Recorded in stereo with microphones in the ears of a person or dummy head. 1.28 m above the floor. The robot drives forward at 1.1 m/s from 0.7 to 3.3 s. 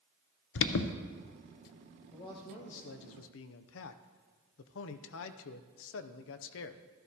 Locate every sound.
0.6 s an alarm: 65° left (ahead or behind), 0.7 m; by 0.9 s 60° left (ahead or behind), 0.7 m
2.1 s a man speaking: 25° left (ahead or behind), 1.3 m; by 6.8 s 70° left (ahead or behind), 0.6 m